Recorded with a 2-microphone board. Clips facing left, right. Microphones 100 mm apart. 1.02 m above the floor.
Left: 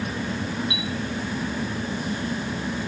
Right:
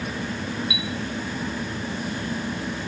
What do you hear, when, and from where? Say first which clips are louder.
0.7 s a chime: even; 40° left (ahead or behind), 2 m